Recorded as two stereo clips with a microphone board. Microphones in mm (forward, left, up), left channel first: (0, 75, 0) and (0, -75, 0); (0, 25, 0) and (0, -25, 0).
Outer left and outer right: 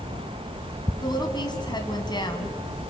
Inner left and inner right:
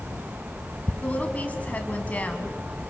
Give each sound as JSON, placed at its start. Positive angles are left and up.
{"t": 1.0, "sound": "a woman speaking", "side_deg": 30, "distance_m": 2.0}